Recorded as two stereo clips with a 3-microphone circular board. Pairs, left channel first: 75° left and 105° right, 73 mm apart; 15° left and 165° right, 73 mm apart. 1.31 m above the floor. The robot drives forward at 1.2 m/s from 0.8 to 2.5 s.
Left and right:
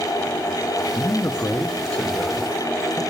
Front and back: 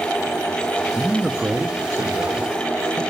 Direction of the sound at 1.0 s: 85° left.